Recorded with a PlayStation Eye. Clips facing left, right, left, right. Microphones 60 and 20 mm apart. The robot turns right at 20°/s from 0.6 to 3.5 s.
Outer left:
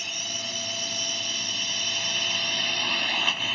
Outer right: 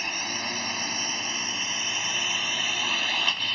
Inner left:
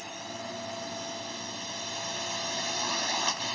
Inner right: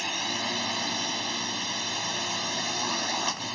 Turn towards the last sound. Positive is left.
turn(degrees=5)